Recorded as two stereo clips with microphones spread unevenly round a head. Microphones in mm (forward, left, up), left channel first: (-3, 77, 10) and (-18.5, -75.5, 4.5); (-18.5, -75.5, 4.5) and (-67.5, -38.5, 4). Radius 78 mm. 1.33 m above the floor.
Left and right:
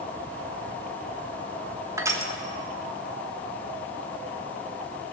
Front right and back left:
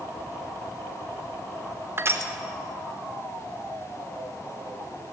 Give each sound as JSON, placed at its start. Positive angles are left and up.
{"t": 2.0, "sound": "crushing", "azimuth_deg": -170, "distance_m": 1.3}